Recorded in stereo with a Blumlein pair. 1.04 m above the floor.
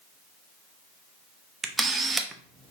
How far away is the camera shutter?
About 0.6 m.